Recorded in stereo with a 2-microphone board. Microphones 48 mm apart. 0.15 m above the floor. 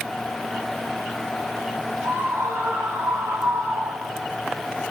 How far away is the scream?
About 6 m.